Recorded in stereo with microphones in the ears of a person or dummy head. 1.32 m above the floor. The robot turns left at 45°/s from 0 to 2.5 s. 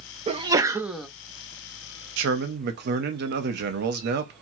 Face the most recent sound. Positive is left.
turn(degrees=-55)  # may be behind; listen again after turning